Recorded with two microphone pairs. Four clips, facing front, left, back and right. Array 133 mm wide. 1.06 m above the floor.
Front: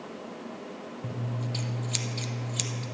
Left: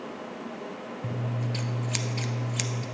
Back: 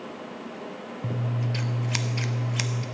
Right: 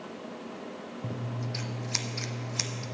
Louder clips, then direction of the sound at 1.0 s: Left 4 dB, back 5 dB; 175° right.